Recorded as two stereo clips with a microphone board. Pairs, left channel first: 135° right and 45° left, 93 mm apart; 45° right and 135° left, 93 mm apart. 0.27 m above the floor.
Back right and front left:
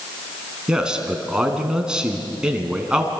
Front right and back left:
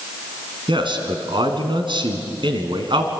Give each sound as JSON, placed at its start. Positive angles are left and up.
{"t": 0.7, "sound": "a man speaking", "azimuth_deg": 125, "distance_m": 3.0}